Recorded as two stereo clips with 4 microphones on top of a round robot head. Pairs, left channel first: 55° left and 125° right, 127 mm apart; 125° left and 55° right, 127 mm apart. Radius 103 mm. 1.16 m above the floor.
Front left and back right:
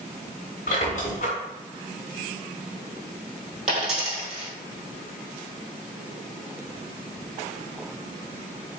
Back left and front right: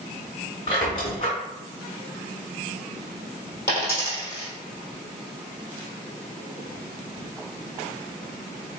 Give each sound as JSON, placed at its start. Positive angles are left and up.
{"t": 0.7, "sound": "a squeak", "azimuth_deg": 80, "distance_m": 0.9}
{"t": 3.7, "sound": "a dropped coin", "azimuth_deg": -165, "distance_m": 1.9}